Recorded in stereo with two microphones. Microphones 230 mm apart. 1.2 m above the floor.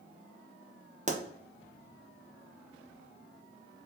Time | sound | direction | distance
1.1 | a pop | 30° right (ahead or behind) | 0.5 m